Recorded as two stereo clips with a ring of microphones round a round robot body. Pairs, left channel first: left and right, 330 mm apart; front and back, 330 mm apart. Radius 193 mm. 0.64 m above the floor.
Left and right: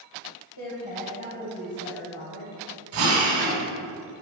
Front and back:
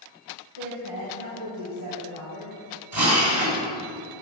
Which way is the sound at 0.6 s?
125° left.